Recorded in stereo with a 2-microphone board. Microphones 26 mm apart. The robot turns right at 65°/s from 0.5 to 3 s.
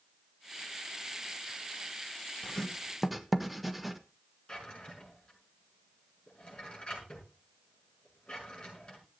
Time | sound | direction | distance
2.4 | writing | 30° left (ahead or behind) | 1.0 m
4.5 | a drawer | 35° left (ahead or behind) | 6 m